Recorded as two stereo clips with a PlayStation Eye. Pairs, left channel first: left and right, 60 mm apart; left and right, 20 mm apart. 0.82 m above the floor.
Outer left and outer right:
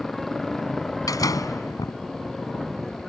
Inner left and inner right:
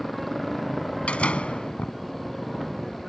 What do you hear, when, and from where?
0.0 s a motorcycle: 5° left (ahead or behind)
1.1 s a door slam: 85° left